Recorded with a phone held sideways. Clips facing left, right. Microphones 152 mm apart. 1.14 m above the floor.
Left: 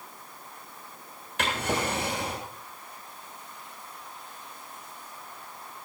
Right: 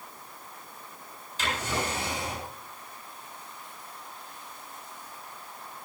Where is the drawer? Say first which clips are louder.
Left 3 dB; 80° left, 7.5 m.